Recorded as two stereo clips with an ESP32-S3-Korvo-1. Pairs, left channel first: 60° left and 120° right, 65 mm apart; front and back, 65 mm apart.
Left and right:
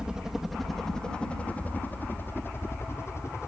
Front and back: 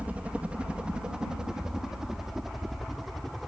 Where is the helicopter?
175° right; by 3.5 s 90° left.